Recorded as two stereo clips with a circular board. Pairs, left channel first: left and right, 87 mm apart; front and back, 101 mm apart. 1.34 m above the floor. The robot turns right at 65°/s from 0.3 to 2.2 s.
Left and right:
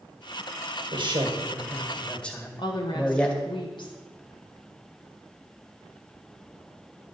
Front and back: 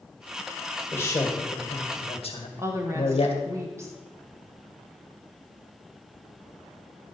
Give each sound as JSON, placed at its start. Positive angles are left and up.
{"t": 0.9, "sound": "a man speaking", "azimuth_deg": -70, "distance_m": 1.8}
{"t": 2.6, "sound": "a woman speaking", "azimuth_deg": 115, "distance_m": 1.7}